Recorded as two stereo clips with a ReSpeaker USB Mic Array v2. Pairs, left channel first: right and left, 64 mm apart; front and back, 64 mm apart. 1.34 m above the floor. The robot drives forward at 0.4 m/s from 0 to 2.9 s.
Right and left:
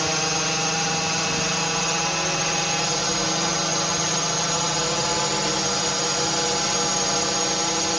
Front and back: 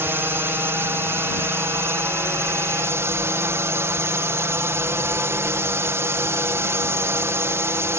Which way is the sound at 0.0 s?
Straight behind.